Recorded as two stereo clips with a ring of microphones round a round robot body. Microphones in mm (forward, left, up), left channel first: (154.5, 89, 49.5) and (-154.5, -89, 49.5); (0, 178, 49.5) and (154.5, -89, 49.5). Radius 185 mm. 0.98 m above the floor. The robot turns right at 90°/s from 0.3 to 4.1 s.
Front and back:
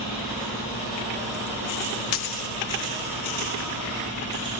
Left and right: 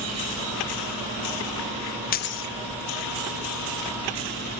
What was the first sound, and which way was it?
A dropped coin, 70° left.